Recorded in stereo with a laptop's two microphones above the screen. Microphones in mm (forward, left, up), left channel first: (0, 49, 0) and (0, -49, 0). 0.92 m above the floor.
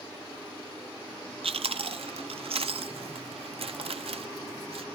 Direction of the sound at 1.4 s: 65° right (ahead or behind).